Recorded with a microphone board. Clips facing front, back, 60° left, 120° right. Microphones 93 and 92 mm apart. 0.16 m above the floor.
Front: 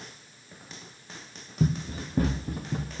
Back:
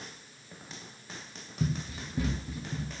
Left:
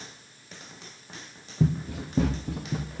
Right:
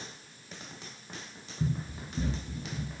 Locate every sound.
1.6 s running footsteps: 55° left, 1.2 m; by 3.0 s 35° left, 1.9 m